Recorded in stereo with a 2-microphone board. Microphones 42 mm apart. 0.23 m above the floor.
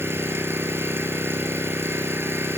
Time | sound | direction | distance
0.0 | an engine running | 75° right (ahead or behind) | 2.5 m